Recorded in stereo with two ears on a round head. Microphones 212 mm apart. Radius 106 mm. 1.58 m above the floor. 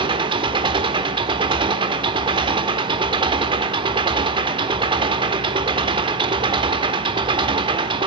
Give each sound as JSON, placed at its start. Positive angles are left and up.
{"t": 0.0, "sound": "an engine running", "side_deg": -20, "distance_m": 1.4}